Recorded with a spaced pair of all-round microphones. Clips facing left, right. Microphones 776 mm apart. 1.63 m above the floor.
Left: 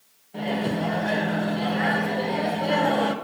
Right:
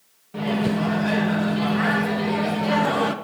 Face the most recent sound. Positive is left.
turn(degrees=-45)  # may be behind; listen again after turning